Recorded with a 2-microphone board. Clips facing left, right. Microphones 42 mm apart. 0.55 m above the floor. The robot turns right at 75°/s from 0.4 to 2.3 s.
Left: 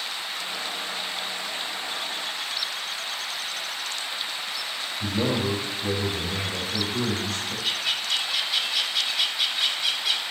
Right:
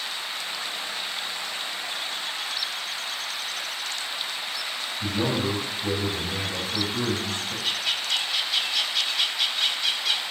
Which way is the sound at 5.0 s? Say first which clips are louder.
Even; 15° left (ahead or behind).